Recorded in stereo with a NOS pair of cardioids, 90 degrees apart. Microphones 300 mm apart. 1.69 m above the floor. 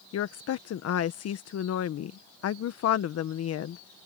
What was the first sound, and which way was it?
A woman speaking, 55° left.